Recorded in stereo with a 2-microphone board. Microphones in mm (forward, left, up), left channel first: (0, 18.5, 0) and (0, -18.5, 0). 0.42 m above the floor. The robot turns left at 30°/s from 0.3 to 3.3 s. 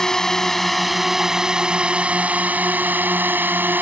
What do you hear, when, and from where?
0.0 s a drone: 20° left; by 3.8 s 70° right